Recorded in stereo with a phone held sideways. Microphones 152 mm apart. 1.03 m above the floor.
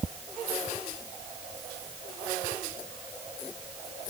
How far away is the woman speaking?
No woman speaking in this recording.